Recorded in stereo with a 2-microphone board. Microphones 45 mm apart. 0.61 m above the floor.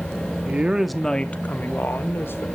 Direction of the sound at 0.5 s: 35° right (ahead or behind).